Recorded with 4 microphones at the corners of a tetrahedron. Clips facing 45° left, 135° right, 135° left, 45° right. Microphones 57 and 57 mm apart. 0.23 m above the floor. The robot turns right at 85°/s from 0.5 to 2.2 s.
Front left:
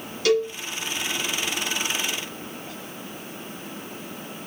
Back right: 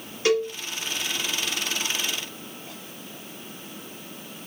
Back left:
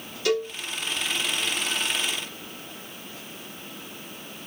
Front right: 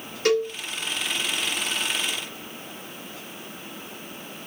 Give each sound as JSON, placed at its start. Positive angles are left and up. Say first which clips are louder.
{"t": 0.2, "sound": "a cowbell", "louder": "front left 1 dB, front right 3 dB", "azimuth_deg": -75, "distance_m": 1.0}